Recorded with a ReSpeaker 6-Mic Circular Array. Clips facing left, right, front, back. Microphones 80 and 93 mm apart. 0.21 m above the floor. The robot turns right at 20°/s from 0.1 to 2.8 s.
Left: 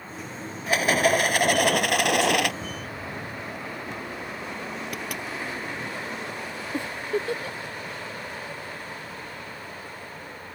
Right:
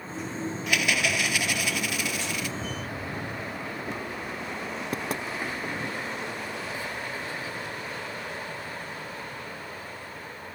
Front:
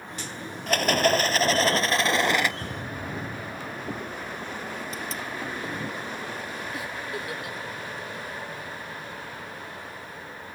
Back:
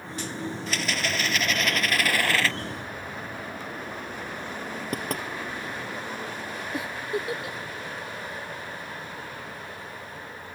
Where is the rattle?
35° left; by 2.5 s 75° left.